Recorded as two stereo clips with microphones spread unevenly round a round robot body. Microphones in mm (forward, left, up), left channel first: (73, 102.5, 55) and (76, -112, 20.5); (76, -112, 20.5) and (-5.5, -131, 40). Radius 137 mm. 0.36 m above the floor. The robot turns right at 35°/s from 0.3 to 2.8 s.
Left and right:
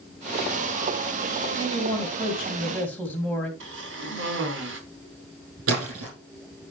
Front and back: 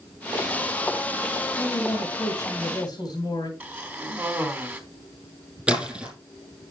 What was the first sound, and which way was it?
A man speaking, 35° right.